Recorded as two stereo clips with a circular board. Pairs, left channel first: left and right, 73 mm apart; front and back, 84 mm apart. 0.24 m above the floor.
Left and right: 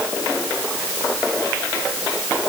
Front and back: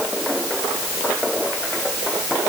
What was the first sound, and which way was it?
Only background noise.